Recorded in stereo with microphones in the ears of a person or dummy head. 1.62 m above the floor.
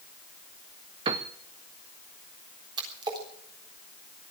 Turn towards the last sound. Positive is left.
turn(degrees=-25)  # may be behind; listen again after turning